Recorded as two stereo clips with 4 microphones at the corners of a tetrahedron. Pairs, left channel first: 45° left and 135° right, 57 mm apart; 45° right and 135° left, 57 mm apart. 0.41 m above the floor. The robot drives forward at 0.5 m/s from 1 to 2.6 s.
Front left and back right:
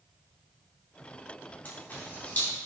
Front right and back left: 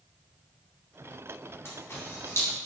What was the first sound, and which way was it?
A camera shutter, 10° right.